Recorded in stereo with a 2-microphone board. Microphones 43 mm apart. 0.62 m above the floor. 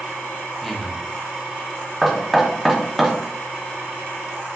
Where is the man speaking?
5° left (ahead or behind), 0.8 m.